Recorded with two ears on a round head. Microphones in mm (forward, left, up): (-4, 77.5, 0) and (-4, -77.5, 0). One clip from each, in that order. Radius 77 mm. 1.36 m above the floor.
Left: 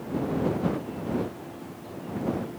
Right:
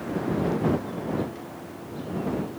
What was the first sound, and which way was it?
Only background noise.